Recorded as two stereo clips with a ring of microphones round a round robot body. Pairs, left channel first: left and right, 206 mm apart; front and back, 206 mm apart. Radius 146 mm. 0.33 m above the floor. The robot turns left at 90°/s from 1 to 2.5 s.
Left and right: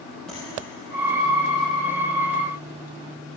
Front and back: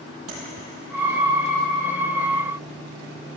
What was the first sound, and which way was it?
Tapping, straight behind.